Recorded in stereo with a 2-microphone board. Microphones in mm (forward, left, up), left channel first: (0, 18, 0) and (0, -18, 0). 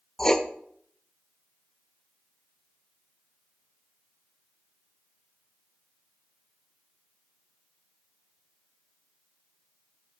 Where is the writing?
15° left (ahead or behind), 0.5 m.